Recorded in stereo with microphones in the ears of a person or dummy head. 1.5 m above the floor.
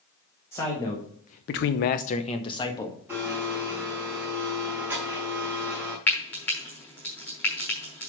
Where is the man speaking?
15° left (ahead or behind), 1.8 m; by 3.0 s 20° left (ahead or behind), 2.0 m.